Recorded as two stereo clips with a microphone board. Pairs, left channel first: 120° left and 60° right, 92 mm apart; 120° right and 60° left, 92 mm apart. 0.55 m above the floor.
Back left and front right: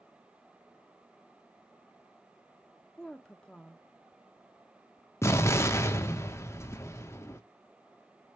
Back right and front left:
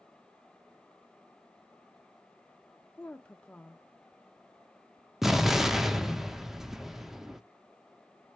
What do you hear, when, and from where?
3.0 s a woman speaking: 170° right, 0.6 m
5.2 s an explosion: 140° left, 0.5 m